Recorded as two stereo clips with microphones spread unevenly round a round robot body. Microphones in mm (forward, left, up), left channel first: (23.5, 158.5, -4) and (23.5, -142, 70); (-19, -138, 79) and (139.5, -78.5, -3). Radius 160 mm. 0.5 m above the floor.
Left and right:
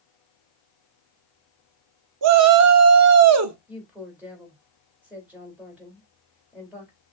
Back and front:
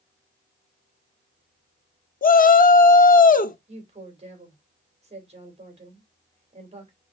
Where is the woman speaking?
Straight ahead, 2.5 m.